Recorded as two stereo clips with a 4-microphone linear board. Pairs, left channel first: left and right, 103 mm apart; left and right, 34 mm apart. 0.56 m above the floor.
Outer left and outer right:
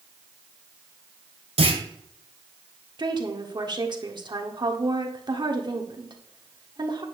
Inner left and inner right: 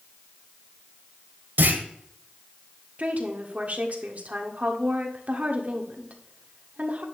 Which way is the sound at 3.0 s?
50° right (ahead or behind).